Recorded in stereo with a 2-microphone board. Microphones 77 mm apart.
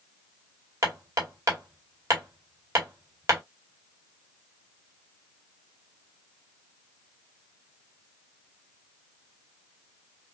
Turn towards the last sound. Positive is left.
turn(degrees=-40)  # may be behind; listen again after turning